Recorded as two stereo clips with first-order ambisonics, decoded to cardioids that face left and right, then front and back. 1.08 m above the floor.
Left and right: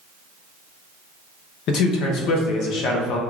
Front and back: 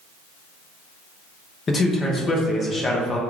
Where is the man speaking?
65° left, 0.8 m.